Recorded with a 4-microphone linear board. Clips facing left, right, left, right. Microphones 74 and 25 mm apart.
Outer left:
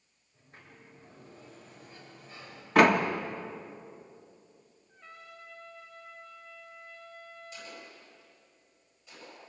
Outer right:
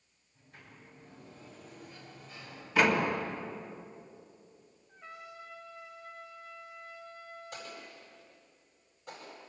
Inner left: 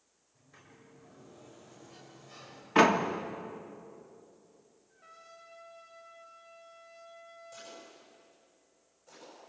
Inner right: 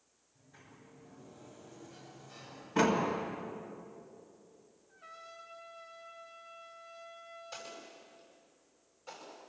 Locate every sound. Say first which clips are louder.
0.3 s a sliding door: even, even; 30° left (ahead or behind), 7 m
2.8 s a door slam: outer left 5 dB, inner left 5 dB; 60° left (ahead or behind), 1.7 m
4.9 s a trumpet: outer right 3 dB, inner right 4 dB; 10° right (ahead or behind), 3 m
7.5 s an explosion: outer right 1 dB, inner right 2 dB; 50° right (ahead or behind), 9 m